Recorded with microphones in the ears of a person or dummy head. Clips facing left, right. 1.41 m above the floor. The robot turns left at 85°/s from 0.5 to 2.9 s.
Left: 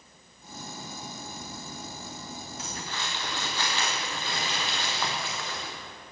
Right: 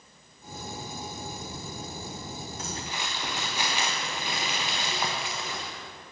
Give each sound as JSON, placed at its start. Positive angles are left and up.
{"t": 2.6, "sound": "crumpling", "side_deg": -40, "distance_m": 1.4}